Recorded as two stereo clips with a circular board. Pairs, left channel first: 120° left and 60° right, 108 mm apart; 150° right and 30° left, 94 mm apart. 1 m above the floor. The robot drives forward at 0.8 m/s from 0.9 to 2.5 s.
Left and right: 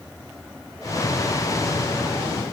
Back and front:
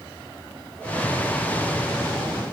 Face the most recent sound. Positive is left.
No sound to turn to.